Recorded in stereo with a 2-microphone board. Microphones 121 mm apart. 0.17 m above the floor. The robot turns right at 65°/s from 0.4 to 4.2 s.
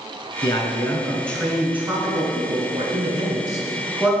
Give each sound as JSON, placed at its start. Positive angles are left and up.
{"t": 0.4, "sound": "a man speaking", "azimuth_deg": 110, "distance_m": 2.0}